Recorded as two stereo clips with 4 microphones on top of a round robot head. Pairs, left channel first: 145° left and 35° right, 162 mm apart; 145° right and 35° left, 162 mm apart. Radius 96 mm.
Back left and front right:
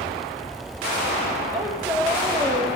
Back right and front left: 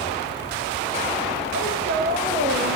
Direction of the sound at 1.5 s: 40° left.